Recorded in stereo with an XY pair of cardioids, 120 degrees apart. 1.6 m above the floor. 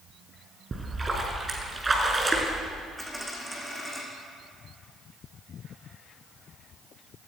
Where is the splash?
20° right, 5 m.